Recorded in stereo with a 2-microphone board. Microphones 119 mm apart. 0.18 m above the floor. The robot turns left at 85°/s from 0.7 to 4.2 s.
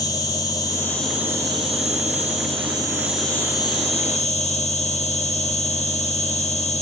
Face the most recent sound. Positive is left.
turn(degrees=95)